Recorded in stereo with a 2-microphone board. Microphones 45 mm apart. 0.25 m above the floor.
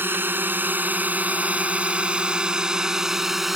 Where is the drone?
50° right (ahead or behind); by 3.6 s 5° right (ahead or behind).